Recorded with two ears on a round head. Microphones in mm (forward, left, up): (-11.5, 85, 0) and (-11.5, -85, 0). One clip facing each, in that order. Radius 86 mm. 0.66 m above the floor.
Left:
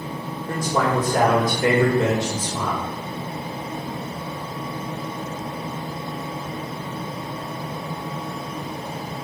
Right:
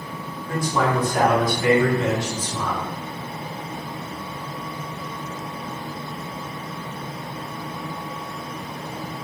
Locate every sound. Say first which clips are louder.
0.5 s a man speaking: even; 35° left (ahead or behind), 1.8 m